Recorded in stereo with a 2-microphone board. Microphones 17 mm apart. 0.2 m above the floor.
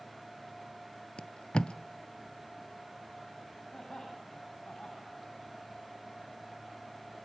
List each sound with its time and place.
1.2 s tape being pulled: 75° left (ahead or behind), 0.6 m
3.7 s laughter: 60° left (ahead or behind), 7.5 m